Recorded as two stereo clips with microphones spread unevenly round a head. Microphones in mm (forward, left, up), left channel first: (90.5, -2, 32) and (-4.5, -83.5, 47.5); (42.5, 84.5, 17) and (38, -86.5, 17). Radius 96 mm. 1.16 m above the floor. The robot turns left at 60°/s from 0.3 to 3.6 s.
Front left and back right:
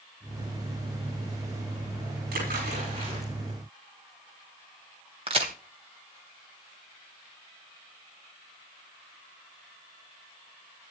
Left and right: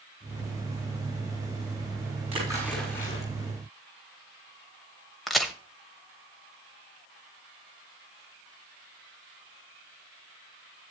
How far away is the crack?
About 1.3 m.